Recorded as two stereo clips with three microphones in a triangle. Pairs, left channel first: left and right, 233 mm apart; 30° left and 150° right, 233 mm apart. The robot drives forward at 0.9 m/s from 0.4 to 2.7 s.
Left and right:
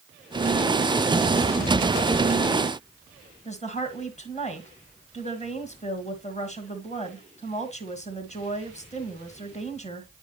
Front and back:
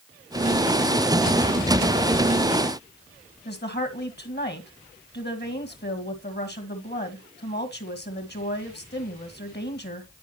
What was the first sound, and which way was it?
A woman speaking, 45° left.